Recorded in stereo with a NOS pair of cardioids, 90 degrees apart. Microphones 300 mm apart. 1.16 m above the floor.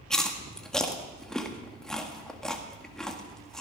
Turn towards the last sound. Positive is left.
turn(degrees=0)